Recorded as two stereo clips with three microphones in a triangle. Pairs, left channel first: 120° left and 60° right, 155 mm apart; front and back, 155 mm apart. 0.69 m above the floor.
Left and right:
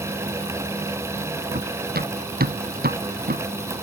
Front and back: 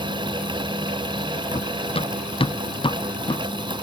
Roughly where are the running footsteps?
Ahead right.